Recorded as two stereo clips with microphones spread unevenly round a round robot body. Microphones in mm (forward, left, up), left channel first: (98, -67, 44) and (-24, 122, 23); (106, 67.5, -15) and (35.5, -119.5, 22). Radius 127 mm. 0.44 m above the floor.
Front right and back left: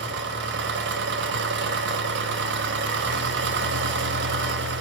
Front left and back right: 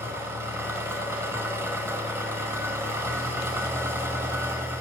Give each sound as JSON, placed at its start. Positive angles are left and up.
{"t": 0.0, "sound": "an engine running", "azimuth_deg": 165, "distance_m": 0.8}